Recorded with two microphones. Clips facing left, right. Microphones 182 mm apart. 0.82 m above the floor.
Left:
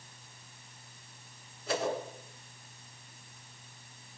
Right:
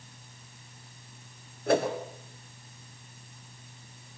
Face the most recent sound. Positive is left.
turn(degrees=-55)  # may be behind; listen again after turning